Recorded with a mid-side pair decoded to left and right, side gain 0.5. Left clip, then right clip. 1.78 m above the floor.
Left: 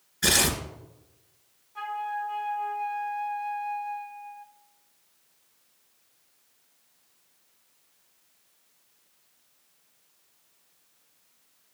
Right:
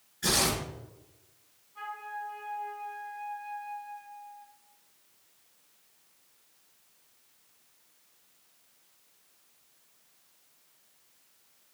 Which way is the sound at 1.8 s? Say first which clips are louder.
Left 7 dB; 70° left.